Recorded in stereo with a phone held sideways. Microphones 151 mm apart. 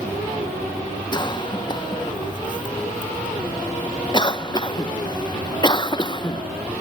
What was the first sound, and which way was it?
A cough, 30° left (ahead or behind).